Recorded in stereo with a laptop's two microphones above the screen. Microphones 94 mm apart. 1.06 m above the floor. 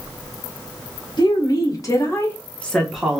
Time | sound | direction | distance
1.2 | a woman speaking | 50° left (ahead or behind) | 1.3 m